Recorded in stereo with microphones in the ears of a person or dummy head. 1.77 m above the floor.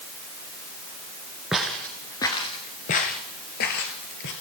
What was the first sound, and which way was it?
Footsteps, 5° right (ahead or behind).